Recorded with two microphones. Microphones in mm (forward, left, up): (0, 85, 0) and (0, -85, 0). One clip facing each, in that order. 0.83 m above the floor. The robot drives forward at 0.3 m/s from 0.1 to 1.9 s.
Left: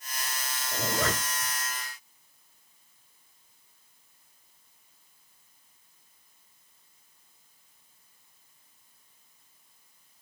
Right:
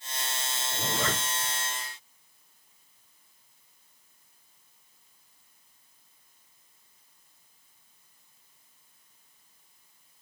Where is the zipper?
40° left (ahead or behind), 3.5 m; by 1.5 s 45° left (ahead or behind), 3 m.